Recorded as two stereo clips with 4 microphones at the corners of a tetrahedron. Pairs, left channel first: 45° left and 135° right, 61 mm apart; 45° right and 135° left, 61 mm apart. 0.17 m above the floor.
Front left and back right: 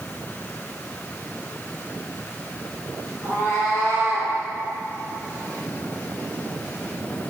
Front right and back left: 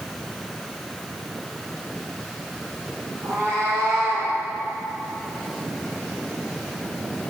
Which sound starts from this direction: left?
A cat meowing, at 3.2 s.